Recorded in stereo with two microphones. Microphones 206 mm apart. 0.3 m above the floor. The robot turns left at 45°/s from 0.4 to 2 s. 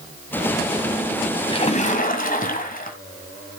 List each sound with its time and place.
1.5 s a splash: 25° left (ahead or behind), 1.8 m; by 3.0 s 40° left (ahead or behind), 1.8 m